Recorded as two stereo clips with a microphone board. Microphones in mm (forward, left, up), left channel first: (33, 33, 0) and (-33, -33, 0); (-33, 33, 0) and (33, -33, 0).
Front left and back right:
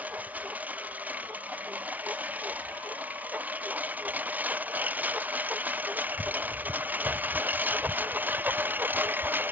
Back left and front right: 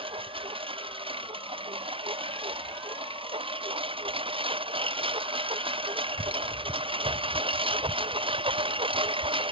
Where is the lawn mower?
60° right; by 9.5 s 65° right.